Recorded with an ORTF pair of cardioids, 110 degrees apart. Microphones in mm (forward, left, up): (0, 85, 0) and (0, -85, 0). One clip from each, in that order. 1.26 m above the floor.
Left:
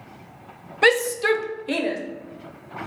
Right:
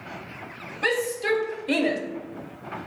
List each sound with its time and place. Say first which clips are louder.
0.8 s a shout: left 6 dB; 50° left, 0.6 m; by 2.0 s 10° right, 0.7 m